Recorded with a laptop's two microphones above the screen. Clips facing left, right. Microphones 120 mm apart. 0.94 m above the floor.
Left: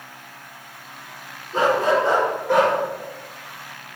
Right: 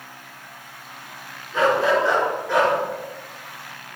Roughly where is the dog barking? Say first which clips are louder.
Even; left.